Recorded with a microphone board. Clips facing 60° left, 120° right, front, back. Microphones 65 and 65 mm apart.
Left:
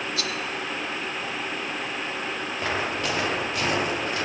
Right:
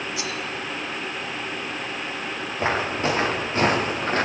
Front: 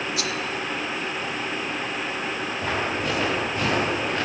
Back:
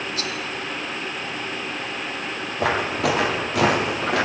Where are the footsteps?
175° left, 5.5 m; by 4.2 s 170° right, 5 m.